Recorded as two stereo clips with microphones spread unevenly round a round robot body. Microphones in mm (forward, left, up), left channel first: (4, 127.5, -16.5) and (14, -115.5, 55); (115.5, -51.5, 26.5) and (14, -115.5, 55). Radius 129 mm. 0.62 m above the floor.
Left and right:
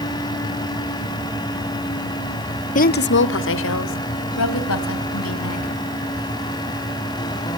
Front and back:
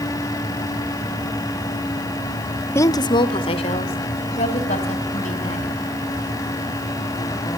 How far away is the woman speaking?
About 0.8 m.